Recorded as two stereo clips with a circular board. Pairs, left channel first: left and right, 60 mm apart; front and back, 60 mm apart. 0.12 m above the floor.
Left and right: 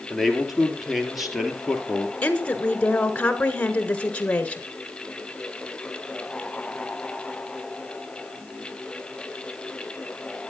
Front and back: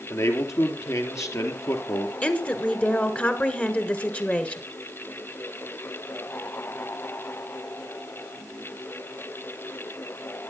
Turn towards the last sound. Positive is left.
turn(degrees=40)